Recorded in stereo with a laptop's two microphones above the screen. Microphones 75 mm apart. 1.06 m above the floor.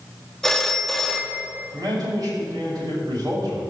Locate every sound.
0.4 s a phone ringing: 5° left (ahead or behind), 0.7 m
1.7 s a man speaking: 60° right (ahead or behind), 5.5 m